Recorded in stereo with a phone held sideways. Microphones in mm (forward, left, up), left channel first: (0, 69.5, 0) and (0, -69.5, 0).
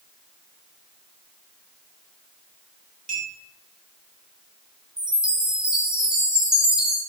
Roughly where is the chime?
Centre.